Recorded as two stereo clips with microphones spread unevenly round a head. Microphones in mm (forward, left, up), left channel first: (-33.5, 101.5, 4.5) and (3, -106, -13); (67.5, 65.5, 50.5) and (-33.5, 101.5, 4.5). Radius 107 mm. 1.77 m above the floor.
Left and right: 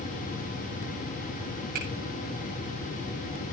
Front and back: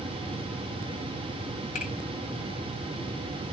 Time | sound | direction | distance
1.8 | a finger snap | 30° right | 8 m